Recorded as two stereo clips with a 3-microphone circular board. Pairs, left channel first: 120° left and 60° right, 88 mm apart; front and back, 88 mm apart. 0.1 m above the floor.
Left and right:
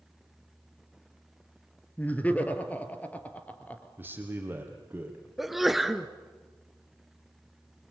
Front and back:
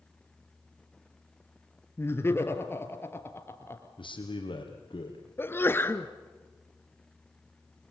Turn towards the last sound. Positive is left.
turn(degrees=25)